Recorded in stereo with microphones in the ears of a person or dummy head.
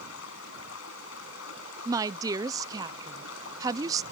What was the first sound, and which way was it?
Running water, 80° left.